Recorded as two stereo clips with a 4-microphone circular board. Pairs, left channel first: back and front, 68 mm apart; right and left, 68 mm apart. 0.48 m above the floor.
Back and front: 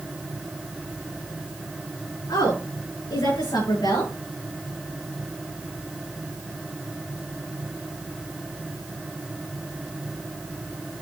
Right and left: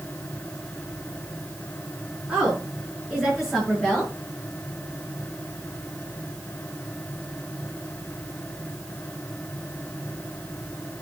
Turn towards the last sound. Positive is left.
turn(degrees=180)